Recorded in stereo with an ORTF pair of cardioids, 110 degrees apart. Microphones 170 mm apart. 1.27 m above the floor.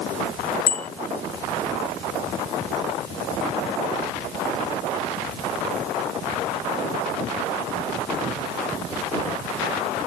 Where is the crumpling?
I don't hear crumpling.